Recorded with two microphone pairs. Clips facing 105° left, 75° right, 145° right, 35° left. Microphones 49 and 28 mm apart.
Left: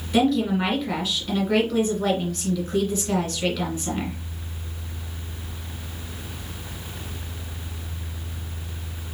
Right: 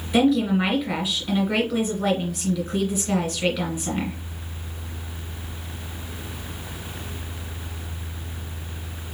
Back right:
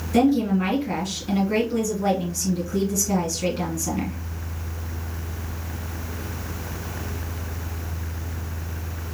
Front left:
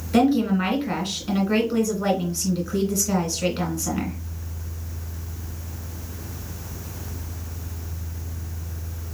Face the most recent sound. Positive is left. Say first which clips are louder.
# right 1 dB, even
turn(degrees=5)